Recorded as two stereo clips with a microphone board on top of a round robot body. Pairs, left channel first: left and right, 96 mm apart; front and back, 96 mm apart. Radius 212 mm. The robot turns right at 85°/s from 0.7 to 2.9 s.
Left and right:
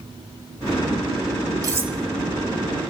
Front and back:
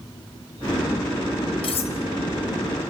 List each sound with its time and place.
1.6 s cutlery clinking: 35° right, 1.0 m; by 2.0 s 10° right, 1.0 m